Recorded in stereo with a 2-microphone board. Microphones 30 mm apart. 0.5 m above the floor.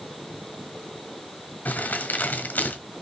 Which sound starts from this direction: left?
Crumpling, at 1.6 s.